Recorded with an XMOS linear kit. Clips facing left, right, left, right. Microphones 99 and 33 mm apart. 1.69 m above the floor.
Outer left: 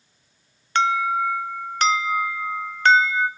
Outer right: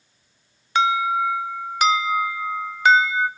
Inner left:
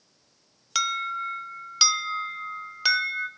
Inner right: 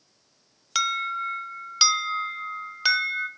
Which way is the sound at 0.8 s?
5° right (ahead or behind).